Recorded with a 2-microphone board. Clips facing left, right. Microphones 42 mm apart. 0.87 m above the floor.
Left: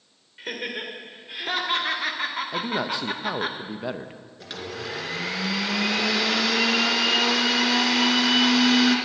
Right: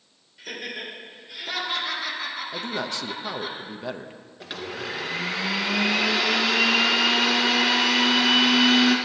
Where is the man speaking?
10° left (ahead or behind), 0.6 m.